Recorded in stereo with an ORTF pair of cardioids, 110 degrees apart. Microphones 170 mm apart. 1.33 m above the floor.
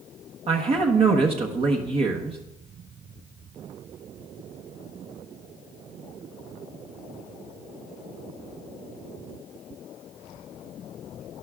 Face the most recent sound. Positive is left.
turn(degrees=-35)